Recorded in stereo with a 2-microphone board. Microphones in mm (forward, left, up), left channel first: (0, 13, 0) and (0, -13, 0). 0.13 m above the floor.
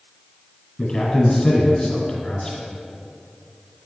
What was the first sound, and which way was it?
A man speaking, 20° left (ahead or behind).